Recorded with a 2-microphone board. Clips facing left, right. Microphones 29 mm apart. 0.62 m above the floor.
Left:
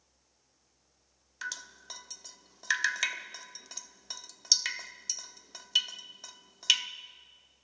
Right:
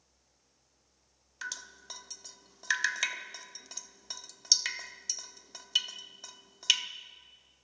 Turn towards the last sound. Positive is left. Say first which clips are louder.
# left 1 dB
turn(degrees=0)  # may be behind; listen again after turning